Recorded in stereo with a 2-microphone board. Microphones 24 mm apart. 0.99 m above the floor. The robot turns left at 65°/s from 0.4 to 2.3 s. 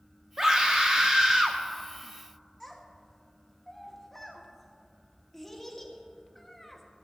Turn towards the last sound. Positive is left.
turn(degrees=10)  # may be behind; listen again after turning